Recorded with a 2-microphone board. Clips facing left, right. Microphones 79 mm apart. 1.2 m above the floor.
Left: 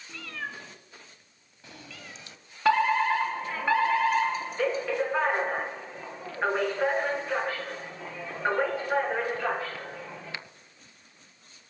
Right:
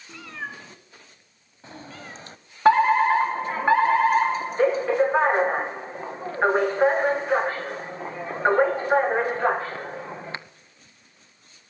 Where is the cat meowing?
20° right (ahead or behind), 2.5 m; by 2.4 s 40° right (ahead or behind), 1.3 m.